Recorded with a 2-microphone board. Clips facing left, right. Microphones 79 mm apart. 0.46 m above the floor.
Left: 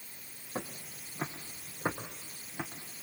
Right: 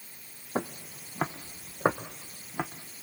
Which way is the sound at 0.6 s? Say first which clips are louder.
Right 7 dB; 65° right (ahead or behind).